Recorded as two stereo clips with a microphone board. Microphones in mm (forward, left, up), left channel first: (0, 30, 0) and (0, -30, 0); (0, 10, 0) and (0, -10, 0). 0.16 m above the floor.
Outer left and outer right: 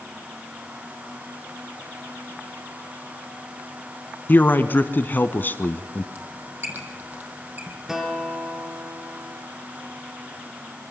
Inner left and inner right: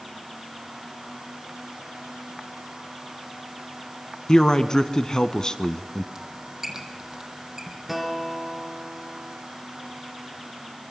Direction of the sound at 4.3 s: 35° left (ahead or behind).